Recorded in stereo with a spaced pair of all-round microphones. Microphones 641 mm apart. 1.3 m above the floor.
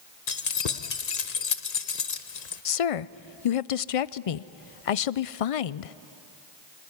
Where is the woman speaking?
60° left (ahead or behind), 0.5 m.